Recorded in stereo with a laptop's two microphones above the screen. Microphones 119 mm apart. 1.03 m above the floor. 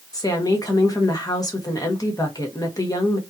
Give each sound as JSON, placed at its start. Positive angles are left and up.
{"t": 0.1, "sound": "a woman speaking", "side_deg": 30, "distance_m": 1.3}